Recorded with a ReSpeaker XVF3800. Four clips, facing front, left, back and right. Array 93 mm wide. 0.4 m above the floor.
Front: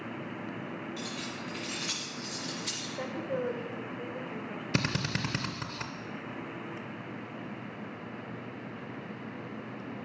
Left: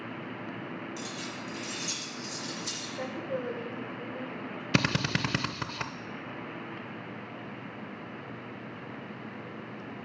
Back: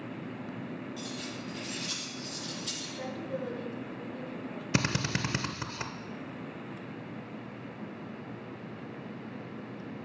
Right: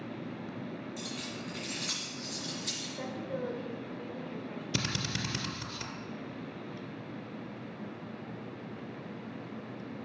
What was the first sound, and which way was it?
Keys jangling, 30° right.